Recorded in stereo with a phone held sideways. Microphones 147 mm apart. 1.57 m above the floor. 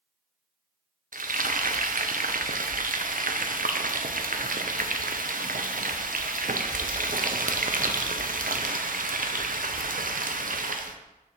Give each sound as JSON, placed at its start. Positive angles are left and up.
{"t": 1.1, "sound": "frying", "side_deg": -70, "distance_m": 0.6}